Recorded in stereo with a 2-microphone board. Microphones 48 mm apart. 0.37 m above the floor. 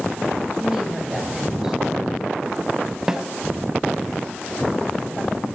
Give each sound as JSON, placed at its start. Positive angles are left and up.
{"t": 0.6, "sound": "a woman speaking", "side_deg": -15, "distance_m": 2.0}
{"t": 3.1, "sound": "a snare drum", "side_deg": -10, "distance_m": 0.5}